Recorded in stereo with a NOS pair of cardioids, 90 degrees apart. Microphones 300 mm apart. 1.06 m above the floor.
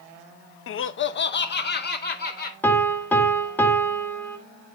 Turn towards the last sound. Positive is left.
turn(degrees=5)